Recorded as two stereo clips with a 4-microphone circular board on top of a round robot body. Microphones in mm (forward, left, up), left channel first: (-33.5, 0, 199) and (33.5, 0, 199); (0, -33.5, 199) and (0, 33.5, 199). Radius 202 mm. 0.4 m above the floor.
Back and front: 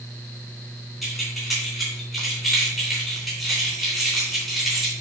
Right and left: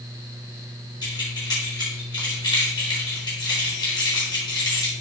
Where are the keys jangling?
90° right, 3.5 m.